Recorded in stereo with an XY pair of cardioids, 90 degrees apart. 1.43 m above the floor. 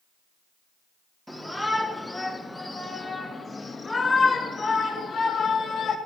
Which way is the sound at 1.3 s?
5° right.